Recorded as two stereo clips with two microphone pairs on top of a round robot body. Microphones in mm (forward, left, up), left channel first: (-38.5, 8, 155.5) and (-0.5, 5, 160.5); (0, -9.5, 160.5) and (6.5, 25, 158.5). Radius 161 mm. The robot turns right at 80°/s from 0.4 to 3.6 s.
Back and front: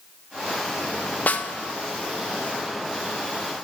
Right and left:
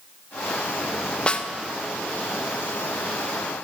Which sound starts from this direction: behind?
A snare drum, at 1.3 s.